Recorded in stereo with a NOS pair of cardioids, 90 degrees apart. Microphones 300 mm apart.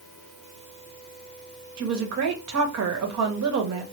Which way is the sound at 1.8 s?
65° right.